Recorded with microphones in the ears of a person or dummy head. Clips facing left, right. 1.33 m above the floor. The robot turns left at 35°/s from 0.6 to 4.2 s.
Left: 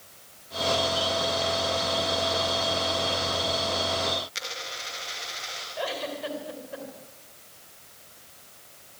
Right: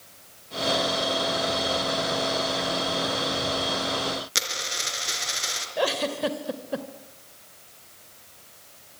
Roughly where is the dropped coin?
Right.